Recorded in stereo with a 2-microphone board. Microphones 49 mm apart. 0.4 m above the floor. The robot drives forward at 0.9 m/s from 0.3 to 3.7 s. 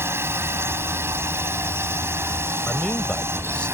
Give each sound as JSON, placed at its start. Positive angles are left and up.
{"t": 0.0, "sound": "a drone", "side_deg": -60}
{"t": 2.7, "sound": "a man speaking", "side_deg": 30}